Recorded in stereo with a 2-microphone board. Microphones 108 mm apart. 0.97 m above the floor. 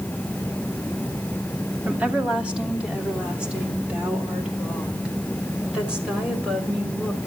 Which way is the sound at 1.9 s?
10° right (ahead or behind).